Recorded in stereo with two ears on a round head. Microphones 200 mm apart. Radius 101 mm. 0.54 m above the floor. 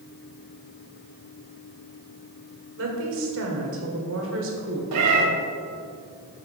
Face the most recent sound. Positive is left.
turn(degrees=-80)